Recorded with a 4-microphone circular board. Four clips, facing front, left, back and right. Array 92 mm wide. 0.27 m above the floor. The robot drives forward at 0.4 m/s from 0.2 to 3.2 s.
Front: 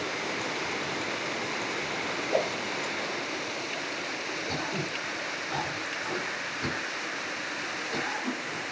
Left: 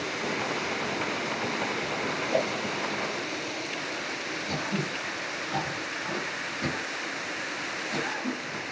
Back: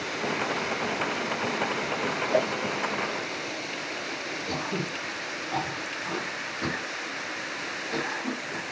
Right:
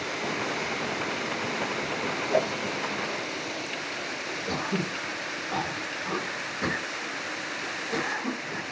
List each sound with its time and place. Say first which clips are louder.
2.3 s a whoosh: right 2 dB, back 2 dB; 150° right, 2 m
4.5 s throat clearing: right 2 dB, back 3 dB; 125° right, 4 m